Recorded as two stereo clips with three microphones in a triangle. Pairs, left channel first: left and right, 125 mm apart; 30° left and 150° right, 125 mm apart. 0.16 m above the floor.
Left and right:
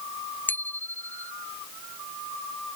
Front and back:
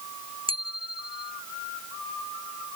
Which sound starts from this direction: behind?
A bicycle bell, at 0.5 s.